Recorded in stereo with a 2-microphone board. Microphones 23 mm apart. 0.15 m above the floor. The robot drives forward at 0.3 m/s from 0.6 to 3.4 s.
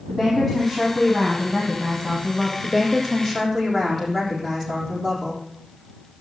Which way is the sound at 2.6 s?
15° left (ahead or behind).